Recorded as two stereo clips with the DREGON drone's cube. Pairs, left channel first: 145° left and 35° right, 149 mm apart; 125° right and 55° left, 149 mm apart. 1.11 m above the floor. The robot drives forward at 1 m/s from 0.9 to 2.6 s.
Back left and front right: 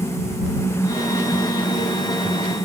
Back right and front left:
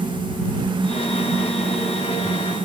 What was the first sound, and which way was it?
Only background noise.